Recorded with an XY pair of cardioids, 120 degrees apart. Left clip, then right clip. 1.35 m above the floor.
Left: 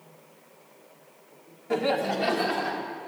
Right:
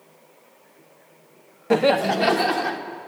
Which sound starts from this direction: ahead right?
Laughter, at 1.7 s.